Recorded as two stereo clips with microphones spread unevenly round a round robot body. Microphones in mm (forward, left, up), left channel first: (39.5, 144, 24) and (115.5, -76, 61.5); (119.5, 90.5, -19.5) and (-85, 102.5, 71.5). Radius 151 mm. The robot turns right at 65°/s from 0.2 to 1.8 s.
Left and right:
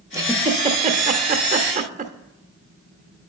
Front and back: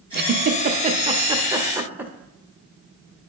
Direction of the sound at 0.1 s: 150° right.